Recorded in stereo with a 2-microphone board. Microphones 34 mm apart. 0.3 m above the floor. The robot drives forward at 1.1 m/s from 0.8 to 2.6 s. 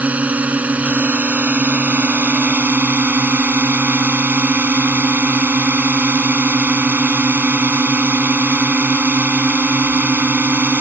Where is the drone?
45° right (ahead or behind); by 10.8 s 60° right (ahead or behind).